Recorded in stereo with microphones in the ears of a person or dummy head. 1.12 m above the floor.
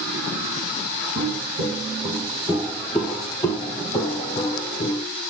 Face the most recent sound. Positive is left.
turn(degrees=25)  # may be behind; listen again after turning